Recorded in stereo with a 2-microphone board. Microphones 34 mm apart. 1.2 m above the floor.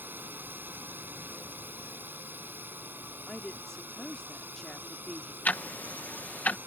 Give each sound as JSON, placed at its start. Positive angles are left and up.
{"t": 0.0, "sound": "a drone", "side_deg": -85}
{"t": 3.3, "sound": "a woman speaking", "side_deg": 10}
{"t": 5.5, "sound": "ticking", "side_deg": 55}